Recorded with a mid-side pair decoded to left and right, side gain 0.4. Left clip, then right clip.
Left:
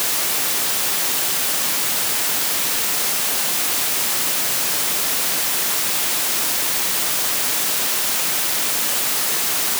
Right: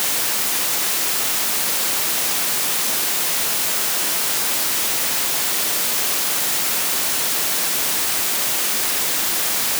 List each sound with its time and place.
Only background noise.